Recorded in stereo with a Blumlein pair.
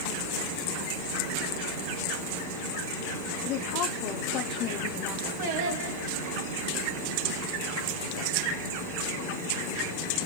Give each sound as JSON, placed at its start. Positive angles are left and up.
{"t": 3.4, "sound": "a woman speaking", "azimuth_deg": 40, "distance_m": 0.7}
{"t": 5.4, "sound": "singing", "azimuth_deg": -50, "distance_m": 2.5}